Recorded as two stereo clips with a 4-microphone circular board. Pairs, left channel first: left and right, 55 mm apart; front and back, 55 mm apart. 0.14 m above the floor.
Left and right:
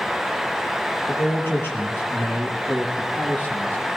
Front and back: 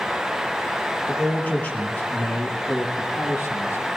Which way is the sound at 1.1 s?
65° left.